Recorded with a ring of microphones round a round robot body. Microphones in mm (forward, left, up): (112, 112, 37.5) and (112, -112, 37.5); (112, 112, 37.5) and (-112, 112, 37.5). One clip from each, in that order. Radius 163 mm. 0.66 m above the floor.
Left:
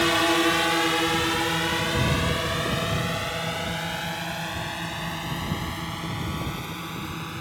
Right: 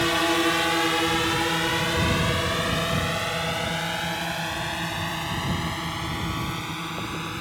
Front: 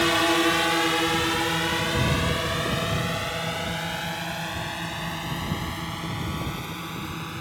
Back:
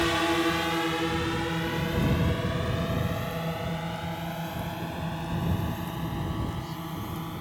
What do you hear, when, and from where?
0.0 s a drone: 20° left; by 7.4 s 45° right